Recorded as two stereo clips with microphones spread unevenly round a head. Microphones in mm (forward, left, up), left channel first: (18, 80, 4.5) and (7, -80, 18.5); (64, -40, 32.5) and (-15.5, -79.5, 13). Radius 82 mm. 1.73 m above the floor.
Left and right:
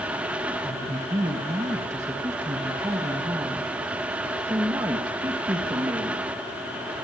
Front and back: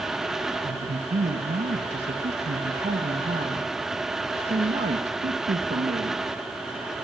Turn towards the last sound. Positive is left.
turn(degrees=-165)